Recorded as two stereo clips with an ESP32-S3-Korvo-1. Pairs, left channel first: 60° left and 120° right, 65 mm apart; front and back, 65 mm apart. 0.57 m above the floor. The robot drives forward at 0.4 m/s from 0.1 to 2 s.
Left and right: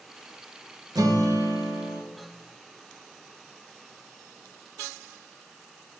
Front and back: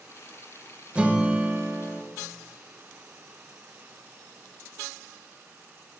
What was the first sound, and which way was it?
A guitar, 110° right.